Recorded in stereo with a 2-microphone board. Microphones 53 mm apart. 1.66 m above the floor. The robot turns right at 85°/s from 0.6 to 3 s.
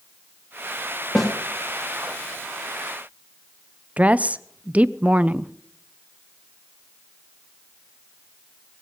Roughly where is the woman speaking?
Right.